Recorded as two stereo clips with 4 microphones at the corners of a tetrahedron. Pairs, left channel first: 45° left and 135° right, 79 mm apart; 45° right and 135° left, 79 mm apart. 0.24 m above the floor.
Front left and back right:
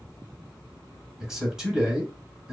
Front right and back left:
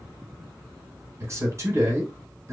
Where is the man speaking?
145° left, 1.3 m.